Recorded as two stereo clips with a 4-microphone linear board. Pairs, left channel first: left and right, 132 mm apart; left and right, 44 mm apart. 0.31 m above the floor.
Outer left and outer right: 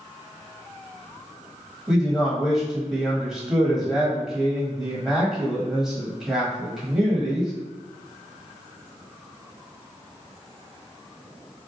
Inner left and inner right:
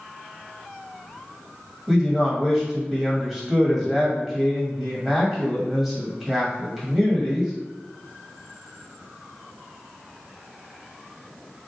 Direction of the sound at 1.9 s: 5° right (ahead or behind).